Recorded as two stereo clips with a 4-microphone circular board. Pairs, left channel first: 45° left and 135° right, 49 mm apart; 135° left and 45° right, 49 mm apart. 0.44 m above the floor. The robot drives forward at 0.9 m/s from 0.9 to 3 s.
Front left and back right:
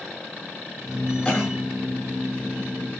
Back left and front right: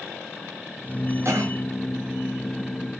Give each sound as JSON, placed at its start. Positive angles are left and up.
{"t": 1.2, "sound": "a cough", "azimuth_deg": -20, "distance_m": 7.0}